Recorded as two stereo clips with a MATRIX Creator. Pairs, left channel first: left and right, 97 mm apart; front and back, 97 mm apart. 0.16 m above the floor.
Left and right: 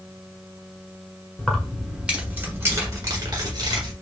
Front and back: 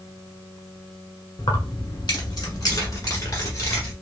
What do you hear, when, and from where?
1.4 s keys jangling: 10° left, 1.3 m; by 3.9 s 55° right, 2.0 m